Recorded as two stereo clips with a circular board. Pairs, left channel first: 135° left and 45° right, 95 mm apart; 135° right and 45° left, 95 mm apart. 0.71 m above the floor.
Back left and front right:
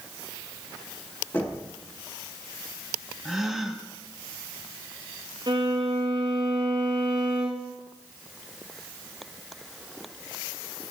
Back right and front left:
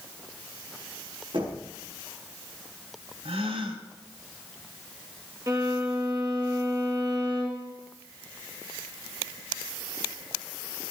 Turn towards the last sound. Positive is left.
turn(degrees=-10)